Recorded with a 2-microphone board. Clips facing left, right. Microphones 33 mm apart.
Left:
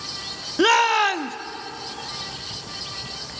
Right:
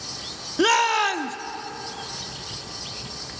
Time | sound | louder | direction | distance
0.6 | a shout | left 2 dB | 10° left (ahead or behind) | 0.6 m